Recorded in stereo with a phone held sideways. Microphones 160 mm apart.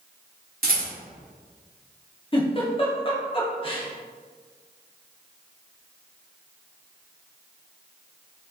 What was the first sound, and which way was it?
A rattle, 70° right (ahead or behind).